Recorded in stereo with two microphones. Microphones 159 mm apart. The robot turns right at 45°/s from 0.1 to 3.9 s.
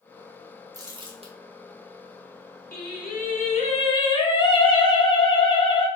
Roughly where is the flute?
I don't hear a flute.